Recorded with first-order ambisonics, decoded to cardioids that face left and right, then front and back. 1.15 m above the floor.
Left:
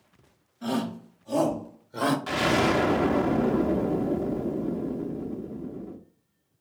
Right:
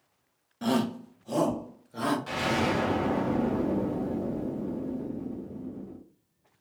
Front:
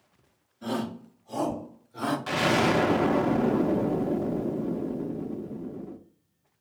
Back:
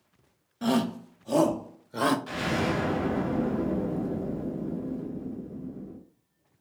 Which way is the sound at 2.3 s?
30° left.